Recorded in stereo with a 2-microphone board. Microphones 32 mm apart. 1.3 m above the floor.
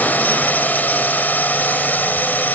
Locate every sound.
0.0 s a drone: 65° left (ahead or behind); by 2.5 s 70° left (ahead or behind)